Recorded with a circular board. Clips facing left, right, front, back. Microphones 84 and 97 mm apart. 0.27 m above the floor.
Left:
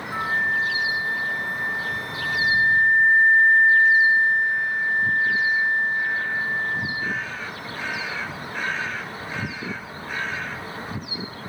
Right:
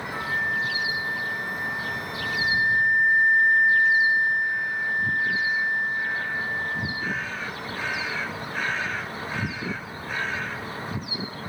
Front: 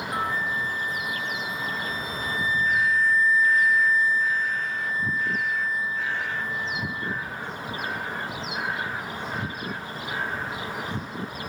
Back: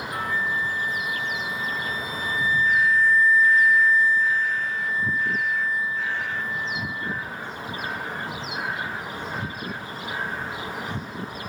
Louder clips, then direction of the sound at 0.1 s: Left 4 dB, back 1 dB; 55° left.